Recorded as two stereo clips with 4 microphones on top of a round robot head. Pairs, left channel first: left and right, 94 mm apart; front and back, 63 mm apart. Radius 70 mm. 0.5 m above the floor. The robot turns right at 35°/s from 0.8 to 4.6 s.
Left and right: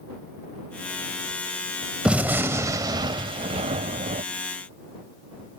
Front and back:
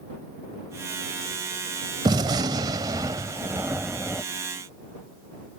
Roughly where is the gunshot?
Behind.